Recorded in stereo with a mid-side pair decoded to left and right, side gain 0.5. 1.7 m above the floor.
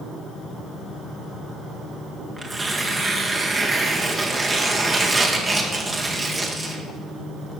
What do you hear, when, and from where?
2.4 s tearing paper: 25° right, 1.9 m